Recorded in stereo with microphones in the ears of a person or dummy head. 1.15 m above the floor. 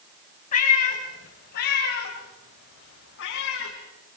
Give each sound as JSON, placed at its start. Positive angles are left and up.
{"t": 0.5, "sound": "a cat meowing", "side_deg": 40, "distance_m": 3.5}